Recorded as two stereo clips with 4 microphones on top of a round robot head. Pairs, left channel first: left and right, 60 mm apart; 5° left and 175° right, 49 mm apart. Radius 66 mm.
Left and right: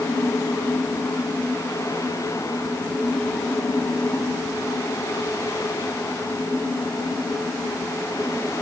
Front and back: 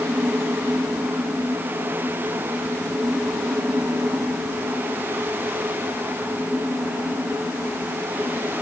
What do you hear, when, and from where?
Only background noise.